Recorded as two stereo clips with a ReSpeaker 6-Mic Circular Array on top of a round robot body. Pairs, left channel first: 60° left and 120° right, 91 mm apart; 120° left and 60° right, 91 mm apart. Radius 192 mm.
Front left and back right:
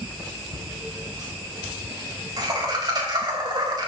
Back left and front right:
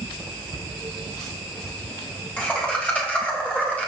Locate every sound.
0.5 s laughter: 165° right, 5 m